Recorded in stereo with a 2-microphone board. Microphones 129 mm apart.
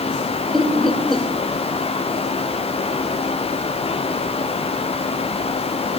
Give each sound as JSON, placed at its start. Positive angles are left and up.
{"t": 0.5, "sound": "laughter", "side_deg": 0, "distance_m": 2.5}